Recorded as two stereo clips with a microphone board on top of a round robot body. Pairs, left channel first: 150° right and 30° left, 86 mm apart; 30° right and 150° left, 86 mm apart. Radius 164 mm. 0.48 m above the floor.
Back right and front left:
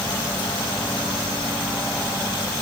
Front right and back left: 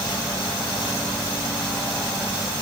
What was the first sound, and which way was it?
Only background noise.